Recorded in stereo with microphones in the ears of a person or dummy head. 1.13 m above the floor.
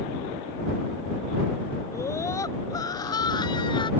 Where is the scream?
15° left (ahead or behind); by 3.9 s 25° left (ahead or behind).